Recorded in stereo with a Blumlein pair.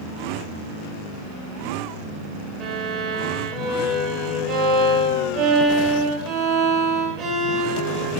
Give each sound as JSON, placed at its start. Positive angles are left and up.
{"t": 2.6, "sound": "a violin", "azimuth_deg": -15, "distance_m": 3.5}